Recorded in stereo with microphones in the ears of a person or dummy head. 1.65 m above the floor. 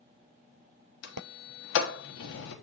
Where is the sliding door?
70° left (ahead or behind), 1.0 m.